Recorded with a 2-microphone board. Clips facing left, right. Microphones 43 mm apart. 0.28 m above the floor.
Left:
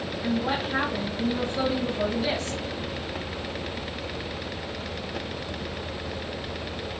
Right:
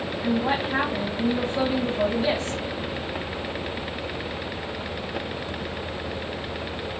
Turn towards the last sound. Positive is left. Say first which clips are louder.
# right 3 dB
turn(degrees=-30)  # may be behind; listen again after turning